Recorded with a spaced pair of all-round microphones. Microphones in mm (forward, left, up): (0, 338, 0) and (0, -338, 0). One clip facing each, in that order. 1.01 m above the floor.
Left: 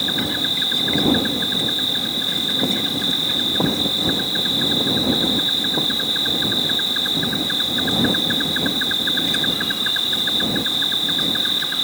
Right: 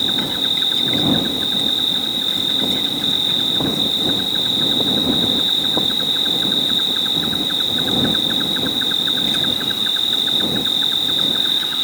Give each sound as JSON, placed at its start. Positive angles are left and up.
{"t": 0.0, "sound": "an insect", "side_deg": 5}